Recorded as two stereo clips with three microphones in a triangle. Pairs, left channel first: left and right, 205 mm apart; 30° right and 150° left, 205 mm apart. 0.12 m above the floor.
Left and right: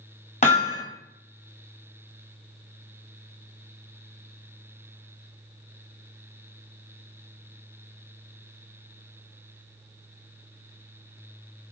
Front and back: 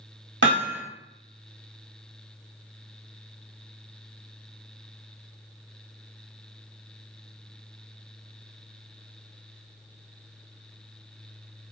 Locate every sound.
0.4 s hammering: 140° left, 0.9 m